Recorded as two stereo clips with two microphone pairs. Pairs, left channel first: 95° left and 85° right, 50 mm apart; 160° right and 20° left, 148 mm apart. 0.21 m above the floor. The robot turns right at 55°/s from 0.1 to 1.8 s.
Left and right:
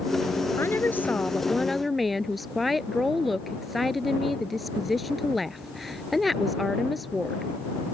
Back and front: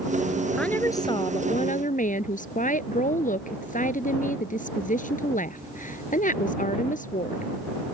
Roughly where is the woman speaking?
Behind left.